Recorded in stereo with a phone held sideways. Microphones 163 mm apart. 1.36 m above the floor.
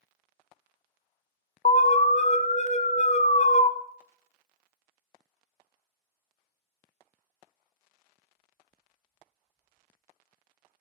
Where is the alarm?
45° left (ahead or behind), 0.8 m.